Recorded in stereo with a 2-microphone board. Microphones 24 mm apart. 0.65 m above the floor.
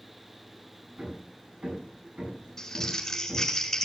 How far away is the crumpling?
About 6 m.